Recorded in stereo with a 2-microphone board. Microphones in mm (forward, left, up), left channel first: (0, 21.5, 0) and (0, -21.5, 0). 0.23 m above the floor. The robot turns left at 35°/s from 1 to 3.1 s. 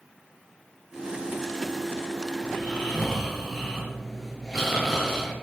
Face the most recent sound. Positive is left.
turn(degrees=0)  # may be behind; listen again after turning